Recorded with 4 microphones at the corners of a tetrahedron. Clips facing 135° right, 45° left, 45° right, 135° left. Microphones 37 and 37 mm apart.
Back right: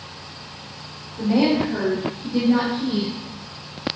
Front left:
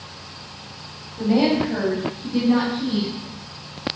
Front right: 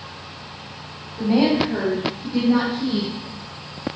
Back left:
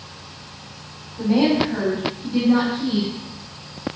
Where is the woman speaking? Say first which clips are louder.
Even, even; 20° right, 1.2 m; by 3.1 s 80° left, 2.5 m.